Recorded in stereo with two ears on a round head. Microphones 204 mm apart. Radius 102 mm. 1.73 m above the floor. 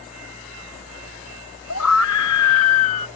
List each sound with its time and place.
1.7 s a scream: 80° left